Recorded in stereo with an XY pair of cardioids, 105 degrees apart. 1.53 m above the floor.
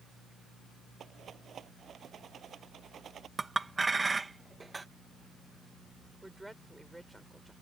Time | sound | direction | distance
1.0 | a rattle | 50° right | ?
3.4 | a clink | 20° right | ?
6.2 | a woman speaking | 5° right | ?